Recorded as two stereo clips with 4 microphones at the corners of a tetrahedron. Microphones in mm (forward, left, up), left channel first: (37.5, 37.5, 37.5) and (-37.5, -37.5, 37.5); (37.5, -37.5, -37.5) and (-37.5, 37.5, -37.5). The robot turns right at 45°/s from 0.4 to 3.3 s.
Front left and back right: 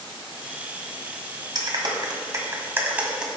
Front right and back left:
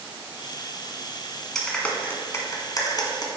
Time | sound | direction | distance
1.6 | a clap | 130° right | 1.6 m